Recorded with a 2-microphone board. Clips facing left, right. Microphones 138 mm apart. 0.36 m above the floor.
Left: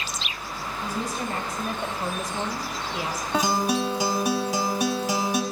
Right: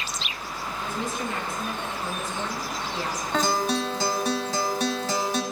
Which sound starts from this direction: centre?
A guitar, at 3.3 s.